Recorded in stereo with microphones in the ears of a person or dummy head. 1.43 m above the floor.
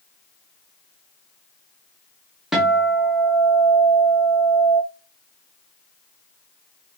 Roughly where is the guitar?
Centre.